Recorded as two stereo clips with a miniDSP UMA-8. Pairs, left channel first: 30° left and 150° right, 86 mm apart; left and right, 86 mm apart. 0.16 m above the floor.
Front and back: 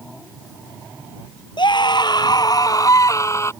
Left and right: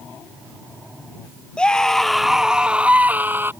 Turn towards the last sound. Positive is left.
turn(degrees=-25)